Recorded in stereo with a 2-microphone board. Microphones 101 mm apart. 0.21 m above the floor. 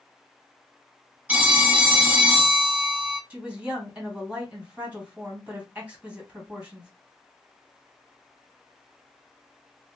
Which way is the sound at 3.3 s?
15° right (ahead or behind).